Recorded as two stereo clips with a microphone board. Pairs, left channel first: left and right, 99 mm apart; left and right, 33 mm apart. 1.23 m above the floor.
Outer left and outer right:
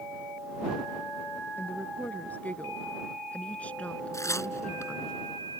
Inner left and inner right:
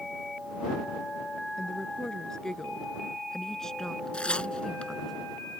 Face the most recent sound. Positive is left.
turn(degrees=30)  # may be behind; listen again after turning